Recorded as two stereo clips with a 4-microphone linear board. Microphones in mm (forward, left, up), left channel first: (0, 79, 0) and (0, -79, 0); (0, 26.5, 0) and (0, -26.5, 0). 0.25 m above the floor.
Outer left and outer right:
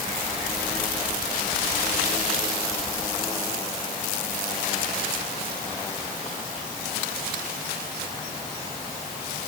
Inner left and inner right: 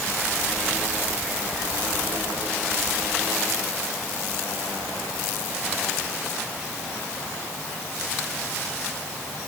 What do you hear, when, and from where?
Only background noise.